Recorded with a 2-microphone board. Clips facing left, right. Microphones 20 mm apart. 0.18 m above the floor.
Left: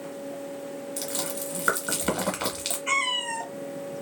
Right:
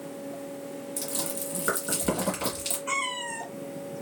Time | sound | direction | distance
1.0 | chewing | 40° left (ahead or behind) | 1.5 m
2.9 | a cat meowing | 70° left (ahead or behind) | 1.8 m